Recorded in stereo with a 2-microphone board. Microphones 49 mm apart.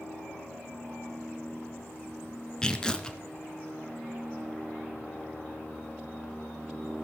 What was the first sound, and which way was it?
Tearing paper, 15° left (ahead or behind).